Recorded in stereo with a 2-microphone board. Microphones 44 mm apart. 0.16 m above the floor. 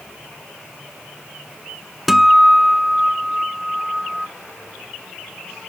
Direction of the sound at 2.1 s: 5° right (ahead or behind).